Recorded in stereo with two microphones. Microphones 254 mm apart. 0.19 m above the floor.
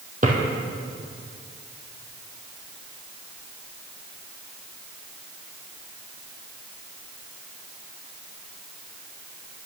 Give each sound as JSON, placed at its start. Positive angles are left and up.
{"t": 0.2, "sound": "a drawer", "side_deg": -35, "distance_m": 2.5}